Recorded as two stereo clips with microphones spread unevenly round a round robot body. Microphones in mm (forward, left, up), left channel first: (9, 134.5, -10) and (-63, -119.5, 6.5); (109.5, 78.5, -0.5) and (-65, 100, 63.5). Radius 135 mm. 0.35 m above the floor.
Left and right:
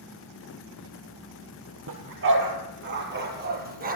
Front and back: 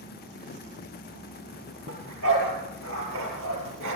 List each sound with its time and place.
1.9 s a dog barking: 145° right, 4.5 m; by 4.0 s 165° right, 4.5 m